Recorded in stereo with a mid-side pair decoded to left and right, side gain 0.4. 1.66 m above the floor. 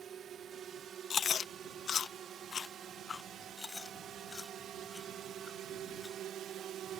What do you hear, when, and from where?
0.0 s a drone: 60° right; by 7.0 s 75° right
1.1 s chewing: 55° left
3.6 s chewing: 40° left